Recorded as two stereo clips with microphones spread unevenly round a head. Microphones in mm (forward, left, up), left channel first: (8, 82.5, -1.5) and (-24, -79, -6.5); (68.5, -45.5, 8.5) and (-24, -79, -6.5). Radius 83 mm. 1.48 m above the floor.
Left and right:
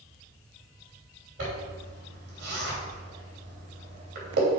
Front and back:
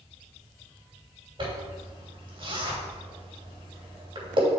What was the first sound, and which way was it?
A zipper, 125° right.